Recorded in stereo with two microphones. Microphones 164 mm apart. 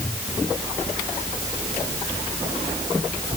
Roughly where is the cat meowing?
I don't hear a cat meowing.